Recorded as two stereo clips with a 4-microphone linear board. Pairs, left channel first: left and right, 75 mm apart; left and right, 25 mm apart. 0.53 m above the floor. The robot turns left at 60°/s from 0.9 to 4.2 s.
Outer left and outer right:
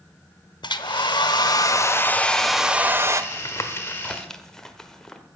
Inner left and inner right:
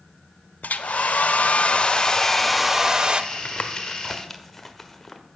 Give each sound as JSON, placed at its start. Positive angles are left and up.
{"t": 0.6, "sound": "a hair dryer", "azimuth_deg": 95, "distance_m": 0.8}
{"t": 3.3, "sound": "tapping", "side_deg": 55, "distance_m": 1.3}